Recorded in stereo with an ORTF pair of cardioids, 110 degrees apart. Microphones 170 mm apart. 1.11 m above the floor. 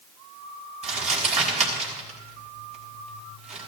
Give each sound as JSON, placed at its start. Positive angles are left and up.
{"t": 0.8, "sound": "crumpling", "azimuth_deg": -40, "distance_m": 5.5}